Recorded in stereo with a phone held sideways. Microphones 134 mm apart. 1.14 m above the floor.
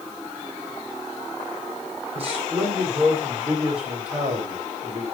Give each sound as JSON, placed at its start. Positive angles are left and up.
{"t": 2.1, "sound": "a man speaking", "side_deg": -50, "distance_m": 5.0}